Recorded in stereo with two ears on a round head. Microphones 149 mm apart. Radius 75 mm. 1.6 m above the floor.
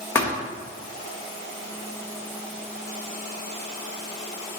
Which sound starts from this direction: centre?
A thud, at 0.1 s.